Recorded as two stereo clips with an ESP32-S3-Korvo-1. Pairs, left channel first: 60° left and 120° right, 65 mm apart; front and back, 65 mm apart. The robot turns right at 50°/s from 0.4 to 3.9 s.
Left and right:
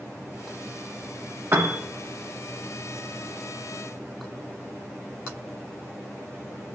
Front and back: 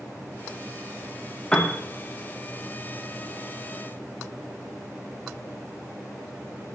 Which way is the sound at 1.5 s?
75° right.